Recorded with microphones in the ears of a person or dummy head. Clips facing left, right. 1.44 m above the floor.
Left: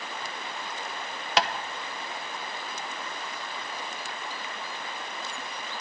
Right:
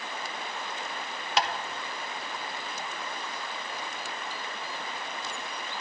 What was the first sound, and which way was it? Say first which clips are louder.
Tapping: left 2 dB; 50° left (ahead or behind).